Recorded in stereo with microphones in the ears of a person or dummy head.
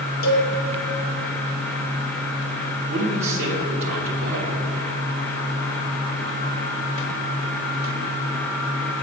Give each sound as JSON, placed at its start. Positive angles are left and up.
{"t": 0.2, "sound": "a cowbell", "side_deg": 85, "distance_m": 1.9}
{"t": 2.9, "sound": "a man speaking", "side_deg": -60, "distance_m": 1.2}